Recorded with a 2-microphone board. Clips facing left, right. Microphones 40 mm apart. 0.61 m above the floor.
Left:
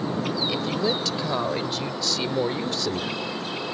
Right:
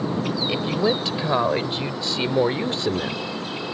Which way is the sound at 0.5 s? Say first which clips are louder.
Right 6 dB; 25° right (ahead or behind).